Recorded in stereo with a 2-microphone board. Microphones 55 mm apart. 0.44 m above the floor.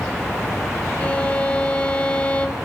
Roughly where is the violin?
Left.